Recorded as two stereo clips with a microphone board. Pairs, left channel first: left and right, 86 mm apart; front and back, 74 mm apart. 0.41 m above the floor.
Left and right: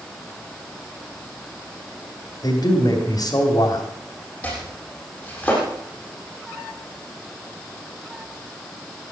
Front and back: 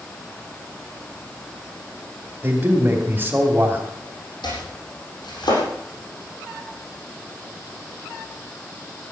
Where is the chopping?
15° left, 8 m.